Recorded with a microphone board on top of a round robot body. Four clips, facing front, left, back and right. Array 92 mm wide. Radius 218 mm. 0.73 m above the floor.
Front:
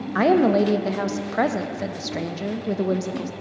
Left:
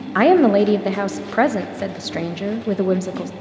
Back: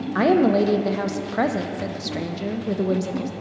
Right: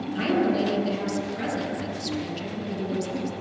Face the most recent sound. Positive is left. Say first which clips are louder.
# left 11 dB, even
turn(degrees=85)